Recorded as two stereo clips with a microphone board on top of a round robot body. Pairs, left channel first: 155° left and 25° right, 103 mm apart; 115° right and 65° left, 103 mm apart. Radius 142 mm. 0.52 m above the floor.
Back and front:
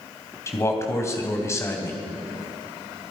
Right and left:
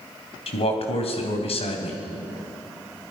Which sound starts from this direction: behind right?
A man speaking, at 0.5 s.